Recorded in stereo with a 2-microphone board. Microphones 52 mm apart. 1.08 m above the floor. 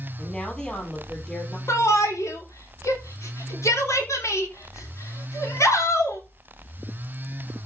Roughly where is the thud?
I don't hear a thud.